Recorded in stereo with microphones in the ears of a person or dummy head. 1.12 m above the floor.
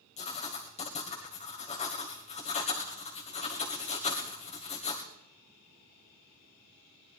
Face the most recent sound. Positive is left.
turn(degrees=30)  # may be behind; listen again after turning